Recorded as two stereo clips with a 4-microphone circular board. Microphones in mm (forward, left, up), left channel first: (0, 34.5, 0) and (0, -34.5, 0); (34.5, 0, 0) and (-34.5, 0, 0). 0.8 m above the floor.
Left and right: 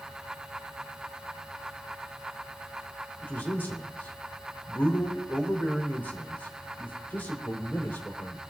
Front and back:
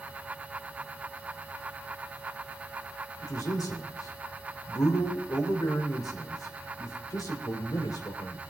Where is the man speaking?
30° left, 3 m.